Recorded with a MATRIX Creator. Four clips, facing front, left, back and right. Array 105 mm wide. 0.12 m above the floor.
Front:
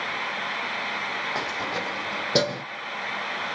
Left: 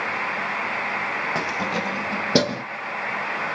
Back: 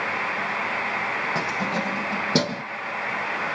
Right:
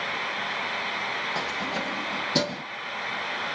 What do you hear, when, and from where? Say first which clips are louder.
1.4 s keys jangling: left 4 dB, back 3 dB; 110° left, 1.5 m; by 2.6 s 90° left, 3 m